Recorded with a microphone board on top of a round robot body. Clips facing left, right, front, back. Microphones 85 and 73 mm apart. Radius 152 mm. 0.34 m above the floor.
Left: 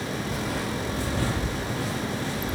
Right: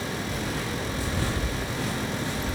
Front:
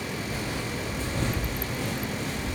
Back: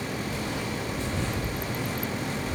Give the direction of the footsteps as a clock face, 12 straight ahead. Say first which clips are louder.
Left 1 dB, back 1 dB; 10 o'clock.